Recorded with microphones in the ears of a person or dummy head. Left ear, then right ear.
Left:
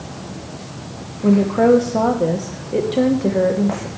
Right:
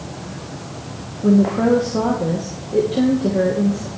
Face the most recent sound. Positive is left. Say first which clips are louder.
# left 2 dB
turn(degrees=30)  # may be behind; listen again after turning